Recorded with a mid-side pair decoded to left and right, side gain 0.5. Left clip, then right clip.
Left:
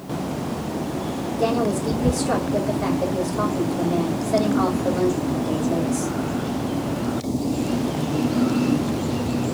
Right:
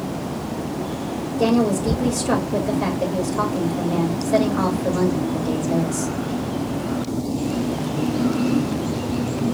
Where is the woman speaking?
40° right, 3 m.